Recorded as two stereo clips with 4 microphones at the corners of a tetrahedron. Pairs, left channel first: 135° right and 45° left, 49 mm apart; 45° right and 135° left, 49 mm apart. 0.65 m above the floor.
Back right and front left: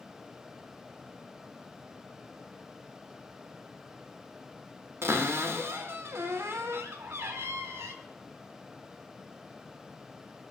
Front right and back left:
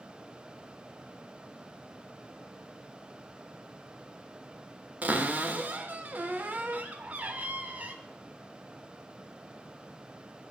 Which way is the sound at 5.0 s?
80° left.